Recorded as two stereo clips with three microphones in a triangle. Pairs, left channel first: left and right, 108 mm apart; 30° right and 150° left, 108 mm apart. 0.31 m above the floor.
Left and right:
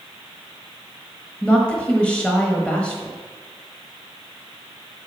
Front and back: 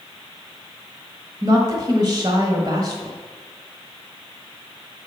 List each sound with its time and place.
1.4 s a woman speaking: 165° left, 1.2 m